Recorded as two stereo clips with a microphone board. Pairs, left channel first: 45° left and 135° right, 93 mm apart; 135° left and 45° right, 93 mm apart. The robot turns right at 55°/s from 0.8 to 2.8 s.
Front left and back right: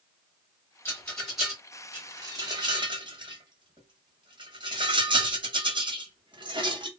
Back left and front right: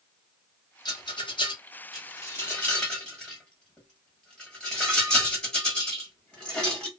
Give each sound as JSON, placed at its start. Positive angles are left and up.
{"t": 0.8, "sound": "a rattle", "azimuth_deg": 105, "distance_m": 1.0}